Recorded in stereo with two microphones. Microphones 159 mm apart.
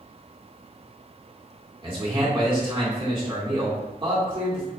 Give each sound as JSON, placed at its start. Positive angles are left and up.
{"t": 1.8, "sound": "a man speaking", "side_deg": -30, "distance_m": 1.9}